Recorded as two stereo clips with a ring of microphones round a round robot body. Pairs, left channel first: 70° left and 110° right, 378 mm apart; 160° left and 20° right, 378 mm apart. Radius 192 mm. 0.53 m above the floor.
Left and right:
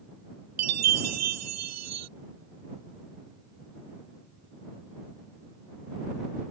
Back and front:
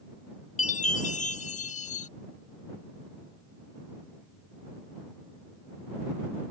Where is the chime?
140° right.